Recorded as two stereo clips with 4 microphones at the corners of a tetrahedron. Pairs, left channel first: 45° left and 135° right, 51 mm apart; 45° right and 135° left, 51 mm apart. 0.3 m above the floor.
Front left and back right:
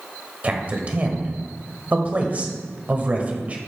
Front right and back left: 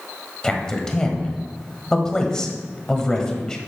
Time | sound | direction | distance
0.4 | a man speaking | 110° right | 1.0 m